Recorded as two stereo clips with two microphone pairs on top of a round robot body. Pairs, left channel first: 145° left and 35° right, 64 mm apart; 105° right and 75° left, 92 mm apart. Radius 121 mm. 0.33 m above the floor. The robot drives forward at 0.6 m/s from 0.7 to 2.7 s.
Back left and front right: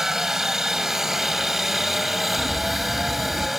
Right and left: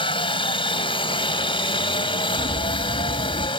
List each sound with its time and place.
0.0 s a helicopter: 115° right; by 3.6 s 120° right
2.4 s a bird: 140° right; by 3.5 s 145° right